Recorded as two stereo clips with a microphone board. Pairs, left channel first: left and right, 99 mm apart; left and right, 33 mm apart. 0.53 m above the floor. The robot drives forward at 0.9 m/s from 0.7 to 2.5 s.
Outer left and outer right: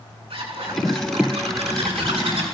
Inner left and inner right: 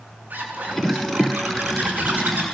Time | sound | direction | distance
0.3 | a zipper | 75° right (ahead or behind) | 6.5 m